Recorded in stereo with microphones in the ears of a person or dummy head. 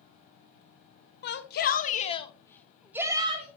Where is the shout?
55° left (ahead or behind), 1.1 m; by 3.5 s 30° right (ahead or behind), 0.8 m.